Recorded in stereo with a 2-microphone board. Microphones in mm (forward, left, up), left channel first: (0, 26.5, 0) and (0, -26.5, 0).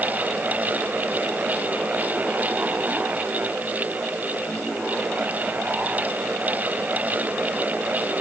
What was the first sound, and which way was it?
Only background noise.